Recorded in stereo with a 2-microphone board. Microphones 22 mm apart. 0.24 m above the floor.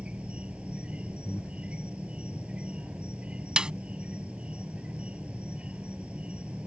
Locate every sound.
0.0 s an insect: 80° right
1.2 s breathing: 70° left (ahead or behind)
3.6 s a snare drum: 50° right (ahead or behind)